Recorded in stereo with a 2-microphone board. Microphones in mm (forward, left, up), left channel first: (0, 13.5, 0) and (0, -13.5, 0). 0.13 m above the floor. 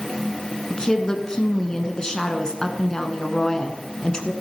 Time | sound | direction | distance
0.7 | a woman speaking | 25° left (ahead or behind) | 1.1 m